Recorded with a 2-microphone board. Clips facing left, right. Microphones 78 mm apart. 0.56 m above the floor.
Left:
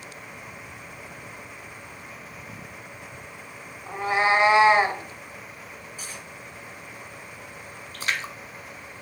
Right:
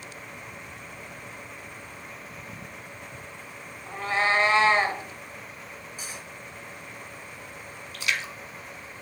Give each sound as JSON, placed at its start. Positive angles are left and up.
{"t": 3.9, "sound": "a cat meowing", "side_deg": 15, "distance_m": 1.0}
{"t": 6.0, "sound": "cutlery clinking", "side_deg": -20, "distance_m": 4.0}
{"t": 7.9, "sound": "a splash", "side_deg": 40, "distance_m": 1.1}